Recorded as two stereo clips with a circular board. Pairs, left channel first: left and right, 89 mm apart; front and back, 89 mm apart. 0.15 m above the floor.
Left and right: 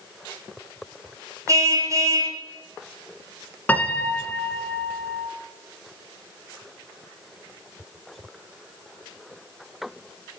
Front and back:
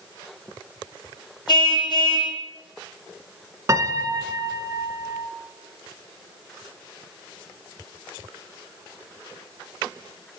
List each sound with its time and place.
1.5 s a car horn: 35° right, 4 m
3.7 s a piano: 155° left, 1.1 m